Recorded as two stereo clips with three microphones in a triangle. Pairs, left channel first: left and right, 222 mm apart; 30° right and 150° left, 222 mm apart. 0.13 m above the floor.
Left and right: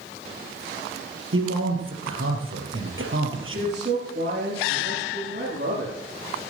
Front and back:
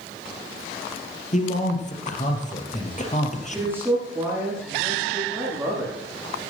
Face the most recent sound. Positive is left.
turn(degrees=-130)